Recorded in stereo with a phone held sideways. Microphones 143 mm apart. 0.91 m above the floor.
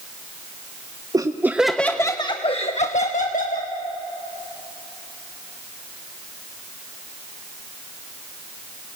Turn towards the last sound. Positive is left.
turn(degrees=70)  # may be behind; listen again after turning